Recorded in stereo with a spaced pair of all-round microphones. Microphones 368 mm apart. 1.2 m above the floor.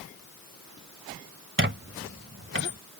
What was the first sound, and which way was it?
A squeak, 30° right (ahead or behind).